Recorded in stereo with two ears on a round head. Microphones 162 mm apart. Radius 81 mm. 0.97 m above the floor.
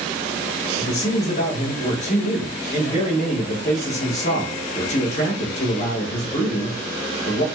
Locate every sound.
0.8 s a man speaking: 40° left (ahead or behind), 1.1 m